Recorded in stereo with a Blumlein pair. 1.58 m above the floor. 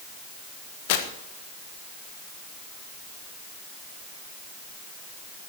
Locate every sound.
0.9 s tearing paper: 50° left, 1.5 m